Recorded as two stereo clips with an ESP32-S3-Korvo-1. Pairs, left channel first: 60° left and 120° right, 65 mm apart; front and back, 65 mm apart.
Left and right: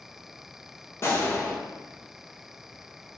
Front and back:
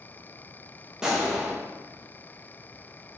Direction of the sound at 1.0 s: 100° left.